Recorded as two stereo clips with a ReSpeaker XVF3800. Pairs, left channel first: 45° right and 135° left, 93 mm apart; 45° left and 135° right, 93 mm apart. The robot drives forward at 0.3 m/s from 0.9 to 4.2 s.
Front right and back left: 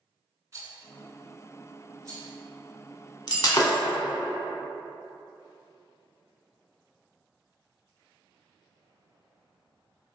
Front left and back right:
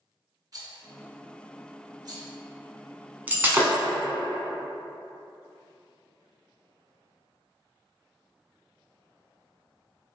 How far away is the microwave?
I don't hear a microwave.